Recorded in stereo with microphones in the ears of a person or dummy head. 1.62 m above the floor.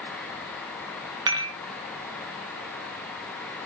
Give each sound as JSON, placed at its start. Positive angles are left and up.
{"t": 1.3, "sound": "dishes clattering", "side_deg": -25, "distance_m": 0.7}